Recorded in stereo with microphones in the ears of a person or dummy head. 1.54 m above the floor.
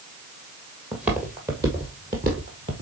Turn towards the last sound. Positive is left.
turn(degrees=-15)  # may be behind; listen again after turning